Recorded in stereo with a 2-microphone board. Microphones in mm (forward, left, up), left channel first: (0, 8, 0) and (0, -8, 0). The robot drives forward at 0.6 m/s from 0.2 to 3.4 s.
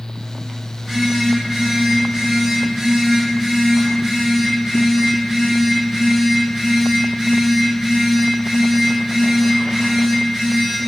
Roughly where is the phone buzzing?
Centre.